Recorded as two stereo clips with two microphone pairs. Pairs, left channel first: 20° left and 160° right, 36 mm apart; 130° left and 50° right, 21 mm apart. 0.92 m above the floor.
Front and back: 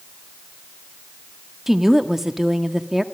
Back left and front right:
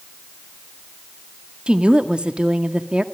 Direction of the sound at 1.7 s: 80° right.